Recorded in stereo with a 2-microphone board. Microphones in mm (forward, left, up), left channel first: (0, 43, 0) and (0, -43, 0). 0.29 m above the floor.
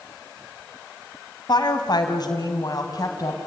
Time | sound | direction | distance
1.5 | a woman speaking | 55° left (ahead or behind) | 2.5 m